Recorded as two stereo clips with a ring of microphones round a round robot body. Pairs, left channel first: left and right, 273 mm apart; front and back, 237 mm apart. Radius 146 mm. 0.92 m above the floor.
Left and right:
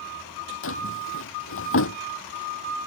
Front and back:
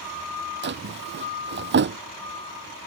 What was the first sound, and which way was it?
A drawer, 135° left.